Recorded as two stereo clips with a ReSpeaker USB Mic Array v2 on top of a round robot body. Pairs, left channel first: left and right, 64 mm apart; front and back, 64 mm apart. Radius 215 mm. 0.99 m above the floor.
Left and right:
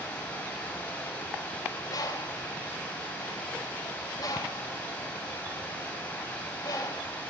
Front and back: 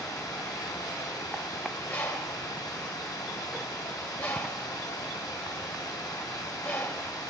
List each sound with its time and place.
0.0 s running water: 20° left, 1.9 m
1.9 s a bird: 60° left, 1.1 m